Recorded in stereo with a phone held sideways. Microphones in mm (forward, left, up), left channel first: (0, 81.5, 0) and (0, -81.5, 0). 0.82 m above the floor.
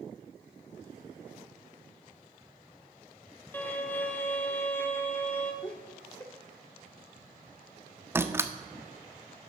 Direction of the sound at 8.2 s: 15° right (ahead or behind).